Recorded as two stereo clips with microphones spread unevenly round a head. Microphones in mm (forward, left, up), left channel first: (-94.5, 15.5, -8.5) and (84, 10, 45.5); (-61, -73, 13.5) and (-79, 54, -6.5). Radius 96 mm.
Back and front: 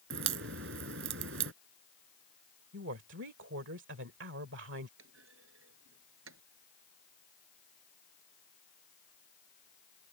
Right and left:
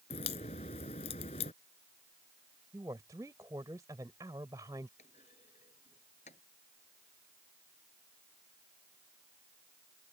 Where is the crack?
25° right.